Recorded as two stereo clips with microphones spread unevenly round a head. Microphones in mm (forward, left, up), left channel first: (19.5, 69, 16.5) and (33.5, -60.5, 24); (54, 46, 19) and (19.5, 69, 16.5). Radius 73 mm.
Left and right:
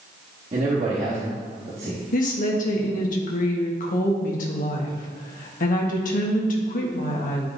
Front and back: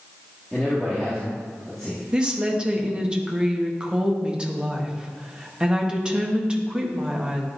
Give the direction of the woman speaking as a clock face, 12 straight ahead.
9 o'clock.